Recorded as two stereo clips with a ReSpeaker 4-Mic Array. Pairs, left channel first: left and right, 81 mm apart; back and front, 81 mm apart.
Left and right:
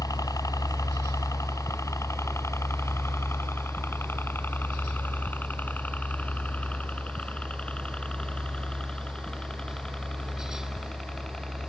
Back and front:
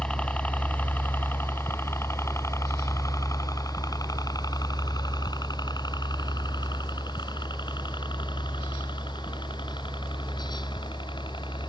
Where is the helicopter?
105° left; by 11.7 s 175° left.